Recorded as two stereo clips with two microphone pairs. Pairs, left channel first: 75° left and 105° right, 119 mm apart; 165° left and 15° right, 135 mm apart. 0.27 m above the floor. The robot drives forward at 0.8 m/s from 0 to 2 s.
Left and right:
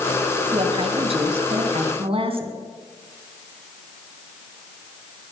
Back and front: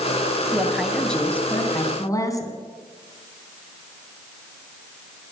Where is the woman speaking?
90° right, 1.7 m; by 2.5 s 135° right, 2 m.